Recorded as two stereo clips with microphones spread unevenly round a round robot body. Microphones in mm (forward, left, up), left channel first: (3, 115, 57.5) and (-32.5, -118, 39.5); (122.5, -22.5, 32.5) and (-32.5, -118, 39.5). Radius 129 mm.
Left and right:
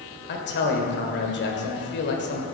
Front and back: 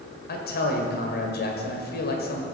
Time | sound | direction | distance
0.3 | a man speaking | 40° left | 1.9 m